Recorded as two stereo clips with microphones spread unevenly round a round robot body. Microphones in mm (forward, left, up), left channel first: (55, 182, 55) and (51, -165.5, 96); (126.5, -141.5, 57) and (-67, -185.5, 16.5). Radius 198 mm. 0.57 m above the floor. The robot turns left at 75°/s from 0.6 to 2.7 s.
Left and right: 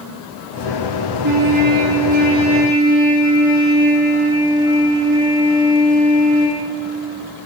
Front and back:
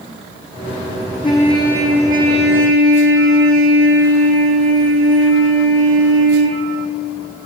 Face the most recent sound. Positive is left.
turn(degrees=-160)